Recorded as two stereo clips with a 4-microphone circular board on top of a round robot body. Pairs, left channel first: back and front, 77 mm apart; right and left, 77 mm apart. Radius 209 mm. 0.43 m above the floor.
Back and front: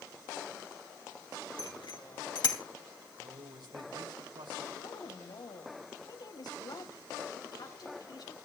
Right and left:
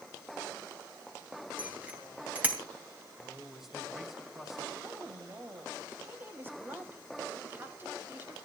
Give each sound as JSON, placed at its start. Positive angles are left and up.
{"t": 1.6, "sound": "a bicycle bell", "azimuth_deg": 160, "distance_m": 3.5}
{"t": 3.2, "sound": "a man speaking", "azimuth_deg": 5, "distance_m": 4.0}
{"t": 4.8, "sound": "a woman speaking", "azimuth_deg": 150, "distance_m": 3.5}